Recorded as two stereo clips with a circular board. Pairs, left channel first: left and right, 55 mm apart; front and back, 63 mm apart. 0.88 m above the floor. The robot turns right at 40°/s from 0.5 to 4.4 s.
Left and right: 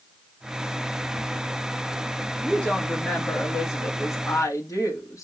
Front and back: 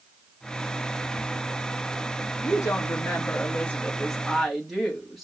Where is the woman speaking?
10° left, 1.8 m; by 5.2 s 90° left, 1.8 m.